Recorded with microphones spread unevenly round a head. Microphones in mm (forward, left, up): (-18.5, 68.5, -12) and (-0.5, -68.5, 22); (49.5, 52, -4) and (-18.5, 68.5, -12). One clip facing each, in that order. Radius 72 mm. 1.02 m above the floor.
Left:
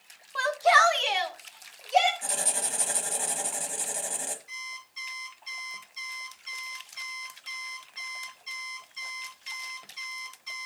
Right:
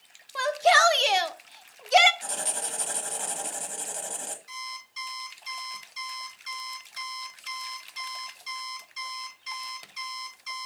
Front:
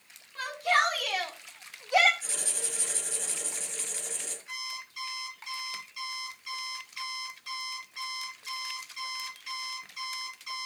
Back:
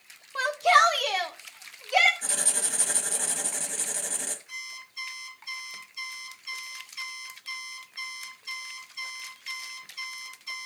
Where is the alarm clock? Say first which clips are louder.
Right 5 dB, front 1 dB; 55° right, 6.5 m.